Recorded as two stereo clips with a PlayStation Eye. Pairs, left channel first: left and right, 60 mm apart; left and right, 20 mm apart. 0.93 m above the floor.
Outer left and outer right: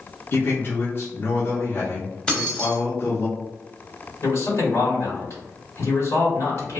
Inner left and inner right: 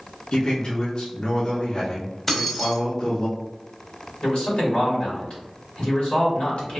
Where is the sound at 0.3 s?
40° left (ahead or behind), 0.9 m.